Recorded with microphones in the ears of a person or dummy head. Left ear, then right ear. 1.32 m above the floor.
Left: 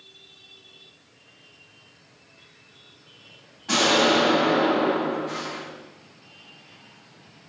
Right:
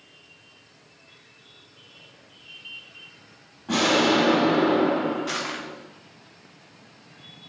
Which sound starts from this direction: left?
An explosion, at 3.7 s.